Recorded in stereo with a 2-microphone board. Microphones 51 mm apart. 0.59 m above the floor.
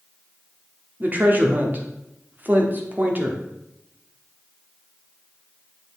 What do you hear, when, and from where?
1.0 s a woman speaking: 40° right (ahead or behind), 1.1 m